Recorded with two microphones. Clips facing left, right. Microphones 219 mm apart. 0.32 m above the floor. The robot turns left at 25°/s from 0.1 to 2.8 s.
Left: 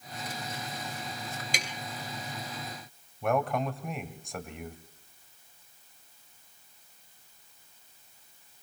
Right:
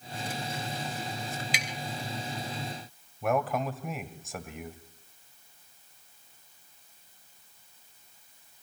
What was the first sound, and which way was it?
Tapping, 45° left (ahead or behind).